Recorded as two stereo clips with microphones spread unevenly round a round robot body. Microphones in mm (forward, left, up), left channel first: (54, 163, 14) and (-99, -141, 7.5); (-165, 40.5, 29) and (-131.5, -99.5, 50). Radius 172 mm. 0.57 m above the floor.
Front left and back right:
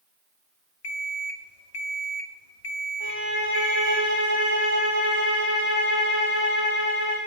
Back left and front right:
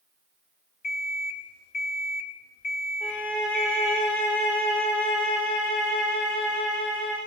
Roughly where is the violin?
Left.